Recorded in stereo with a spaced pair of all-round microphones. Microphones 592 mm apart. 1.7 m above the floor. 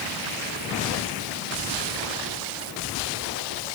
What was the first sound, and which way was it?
Only background noise.